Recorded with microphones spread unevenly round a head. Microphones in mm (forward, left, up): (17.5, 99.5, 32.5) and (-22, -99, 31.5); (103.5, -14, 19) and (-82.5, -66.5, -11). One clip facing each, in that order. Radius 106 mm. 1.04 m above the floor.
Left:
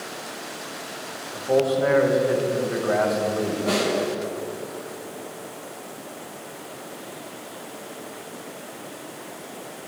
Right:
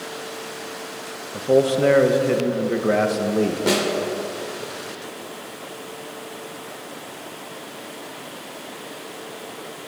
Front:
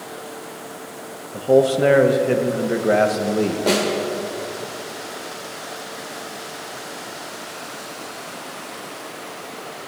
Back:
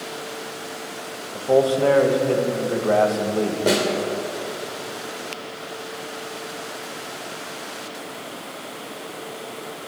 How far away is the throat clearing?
I don't hear throat clearing.